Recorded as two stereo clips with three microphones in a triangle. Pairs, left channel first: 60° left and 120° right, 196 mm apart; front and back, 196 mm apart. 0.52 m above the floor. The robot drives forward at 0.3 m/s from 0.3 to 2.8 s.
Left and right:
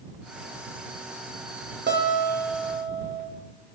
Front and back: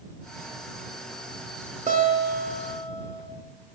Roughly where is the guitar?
Behind right.